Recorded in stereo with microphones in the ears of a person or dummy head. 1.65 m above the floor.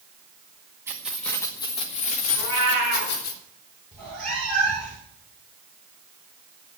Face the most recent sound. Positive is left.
turn(degrees=5)  # may be behind; listen again after turning